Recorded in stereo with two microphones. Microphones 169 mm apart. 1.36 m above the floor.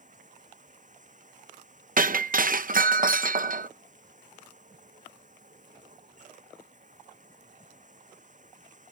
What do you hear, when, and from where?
0.0 s running water: 50° right (ahead or behind)
2.0 s breaking glass: 55° right (ahead or behind)